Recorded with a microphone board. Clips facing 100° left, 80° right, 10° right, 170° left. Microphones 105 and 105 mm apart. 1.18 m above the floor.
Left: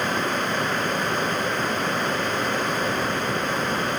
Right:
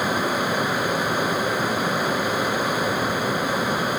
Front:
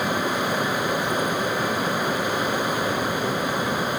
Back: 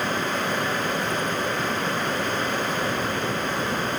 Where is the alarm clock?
I don't hear an alarm clock.